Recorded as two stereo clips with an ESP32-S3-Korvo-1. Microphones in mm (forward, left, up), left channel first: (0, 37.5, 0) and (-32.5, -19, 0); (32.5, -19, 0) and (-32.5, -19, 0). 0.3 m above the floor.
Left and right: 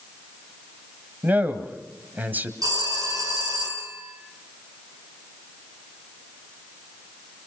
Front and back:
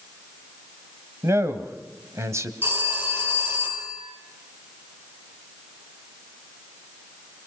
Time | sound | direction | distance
1.2 | a man speaking | 170° right | 1.6 m
2.6 | a phone ringing | 125° right | 5.5 m